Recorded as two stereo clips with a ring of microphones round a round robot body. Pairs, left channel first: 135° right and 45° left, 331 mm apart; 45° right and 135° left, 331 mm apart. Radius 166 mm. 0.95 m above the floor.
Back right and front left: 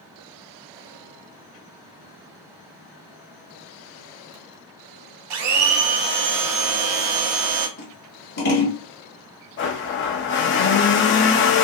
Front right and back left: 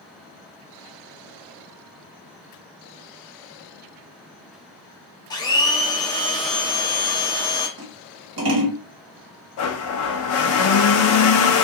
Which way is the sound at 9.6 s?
85° right.